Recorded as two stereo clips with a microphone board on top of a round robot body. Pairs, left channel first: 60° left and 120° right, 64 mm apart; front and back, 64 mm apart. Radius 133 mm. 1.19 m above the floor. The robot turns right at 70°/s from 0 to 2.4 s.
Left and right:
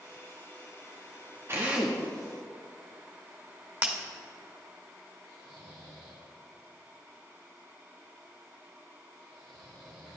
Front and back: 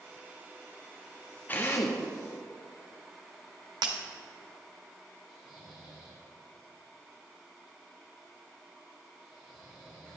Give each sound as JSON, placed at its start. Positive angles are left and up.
{"t": 1.5, "sound": "a drill", "azimuth_deg": -65, "distance_m": 1.4}
{"t": 3.8, "sound": "breaking glass", "azimuth_deg": 180, "distance_m": 1.6}
{"t": 5.3, "sound": "snoring", "azimuth_deg": -100, "distance_m": 5.5}